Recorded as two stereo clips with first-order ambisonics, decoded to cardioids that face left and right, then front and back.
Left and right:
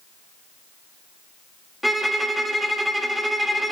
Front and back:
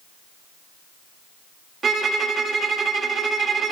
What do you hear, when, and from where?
1.8 s a violin: 175° right, 0.6 m